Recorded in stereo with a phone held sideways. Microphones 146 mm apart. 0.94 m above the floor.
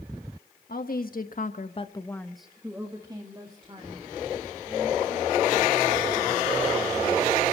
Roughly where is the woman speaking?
Left.